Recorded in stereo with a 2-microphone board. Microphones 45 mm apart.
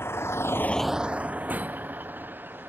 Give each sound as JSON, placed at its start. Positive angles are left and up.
{"t": 0.0, "sound": "a vehicle", "side_deg": 70}